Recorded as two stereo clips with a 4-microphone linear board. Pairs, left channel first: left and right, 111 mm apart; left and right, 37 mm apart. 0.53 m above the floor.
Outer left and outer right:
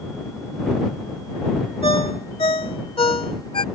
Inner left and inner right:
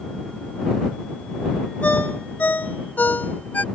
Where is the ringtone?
60° left (ahead or behind).